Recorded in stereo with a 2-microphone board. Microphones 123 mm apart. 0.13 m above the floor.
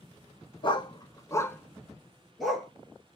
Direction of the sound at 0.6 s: 40° left (ahead or behind).